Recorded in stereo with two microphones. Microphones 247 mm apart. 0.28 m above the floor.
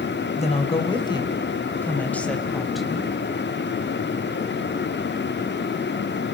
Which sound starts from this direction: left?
A woman speaking, at 0.3 s.